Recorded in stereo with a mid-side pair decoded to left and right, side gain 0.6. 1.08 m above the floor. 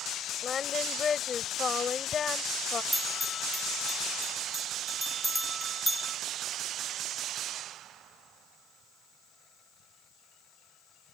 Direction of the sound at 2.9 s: Straight ahead.